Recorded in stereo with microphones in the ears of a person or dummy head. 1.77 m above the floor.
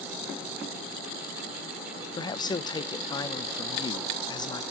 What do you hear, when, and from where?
2.2 s a man speaking: 25° left (ahead or behind), 0.6 m